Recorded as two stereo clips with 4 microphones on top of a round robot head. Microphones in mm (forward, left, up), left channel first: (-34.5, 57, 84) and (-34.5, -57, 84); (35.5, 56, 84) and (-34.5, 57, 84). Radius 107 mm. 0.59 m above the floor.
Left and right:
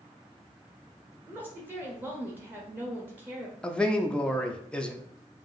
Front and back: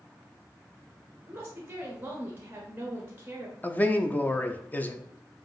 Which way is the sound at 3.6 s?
20° left.